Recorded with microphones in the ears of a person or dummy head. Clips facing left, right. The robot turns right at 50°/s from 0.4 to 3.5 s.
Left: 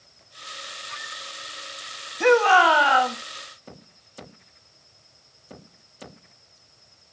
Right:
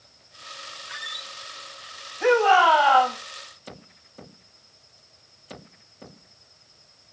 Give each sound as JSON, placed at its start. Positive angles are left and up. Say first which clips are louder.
{"t": 0.9, "sound": "a squeak", "louder": "left 2 dB", "side_deg": -10, "distance_m": 0.9}
{"t": 2.2, "sound": "a shout", "louder": "left 1 dB", "azimuth_deg": 115, "distance_m": 2.5}